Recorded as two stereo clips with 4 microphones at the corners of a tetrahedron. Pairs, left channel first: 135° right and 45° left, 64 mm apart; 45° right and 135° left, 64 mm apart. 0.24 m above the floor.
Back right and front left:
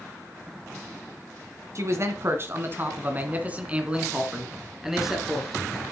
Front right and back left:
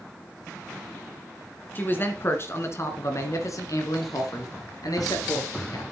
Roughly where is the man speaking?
Ahead.